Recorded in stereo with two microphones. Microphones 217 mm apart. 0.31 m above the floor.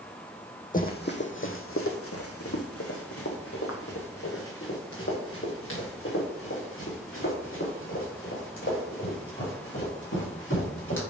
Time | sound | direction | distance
0.7 | running footsteps | 35° left (ahead or behind) | 1.0 m